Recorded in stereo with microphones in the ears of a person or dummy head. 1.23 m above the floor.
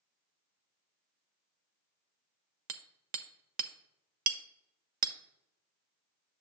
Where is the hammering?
50° right (ahead or behind), 0.5 m.